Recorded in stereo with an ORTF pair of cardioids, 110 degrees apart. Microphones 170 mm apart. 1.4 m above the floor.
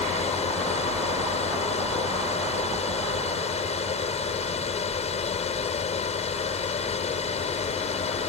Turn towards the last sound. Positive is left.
turn(degrees=40)